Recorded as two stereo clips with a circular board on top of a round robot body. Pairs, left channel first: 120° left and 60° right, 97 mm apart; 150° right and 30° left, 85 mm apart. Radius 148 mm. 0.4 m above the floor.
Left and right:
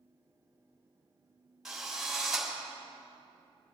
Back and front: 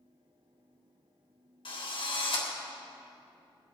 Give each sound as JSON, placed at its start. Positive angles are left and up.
{"t": 1.6, "sound": "a drill", "azimuth_deg": -145, "distance_m": 3.5}